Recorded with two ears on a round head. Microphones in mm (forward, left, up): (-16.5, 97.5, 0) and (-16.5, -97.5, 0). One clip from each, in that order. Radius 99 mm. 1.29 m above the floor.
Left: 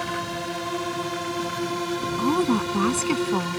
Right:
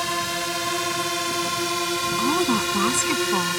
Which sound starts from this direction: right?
A drone, at 0.0 s.